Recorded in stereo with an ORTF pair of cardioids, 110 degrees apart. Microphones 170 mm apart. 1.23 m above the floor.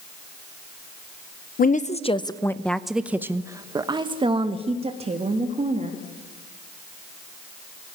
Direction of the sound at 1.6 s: 55° left.